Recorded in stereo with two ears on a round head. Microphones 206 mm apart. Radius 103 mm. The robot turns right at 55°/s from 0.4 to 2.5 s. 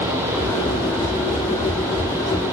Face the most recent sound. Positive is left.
No sound to turn to.